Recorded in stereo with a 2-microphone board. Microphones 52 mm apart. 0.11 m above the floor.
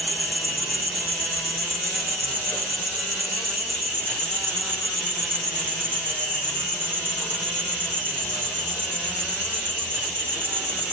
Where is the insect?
30° right (ahead or behind), 6.5 m.